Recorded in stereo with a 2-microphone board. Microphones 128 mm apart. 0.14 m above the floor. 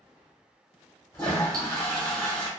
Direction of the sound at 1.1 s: 20° left (ahead or behind).